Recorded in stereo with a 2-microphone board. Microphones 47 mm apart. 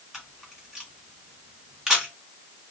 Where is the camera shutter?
10° right (ahead or behind), 2 m.